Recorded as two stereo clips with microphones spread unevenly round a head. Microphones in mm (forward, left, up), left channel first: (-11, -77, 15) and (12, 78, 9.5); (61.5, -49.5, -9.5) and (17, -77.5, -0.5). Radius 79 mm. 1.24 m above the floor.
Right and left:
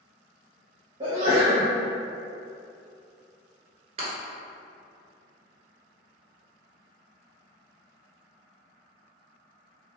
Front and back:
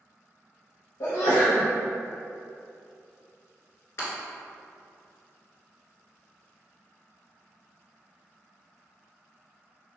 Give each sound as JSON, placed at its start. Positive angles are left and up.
{"t": 1.0, "sound": "a sneeze", "azimuth_deg": 25, "distance_m": 0.9}
{"t": 4.0, "sound": "breaking glass", "azimuth_deg": 45, "distance_m": 1.5}